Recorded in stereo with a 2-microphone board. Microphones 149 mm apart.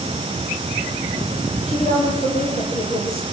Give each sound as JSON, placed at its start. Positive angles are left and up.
{"t": 1.7, "sound": "a woman speaking", "side_deg": 45, "distance_m": 9.0}